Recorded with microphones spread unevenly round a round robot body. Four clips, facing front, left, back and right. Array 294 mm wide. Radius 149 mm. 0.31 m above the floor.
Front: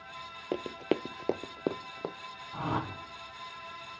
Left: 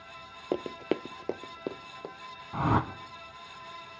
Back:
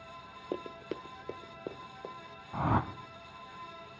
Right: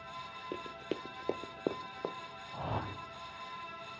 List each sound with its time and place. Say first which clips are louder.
0.5 s running footsteps: left 10 dB, front 7 dB; 70° left, 0.5 m; by 2.1 s 20° right, 1.1 m
2.5 s a whoosh: left 11 dB, back 3 dB; 110° left, 1.1 m